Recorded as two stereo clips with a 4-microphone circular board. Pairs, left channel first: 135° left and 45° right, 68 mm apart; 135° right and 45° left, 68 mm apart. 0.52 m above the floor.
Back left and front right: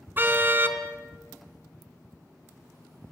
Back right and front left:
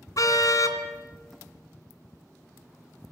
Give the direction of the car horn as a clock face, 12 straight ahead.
3 o'clock.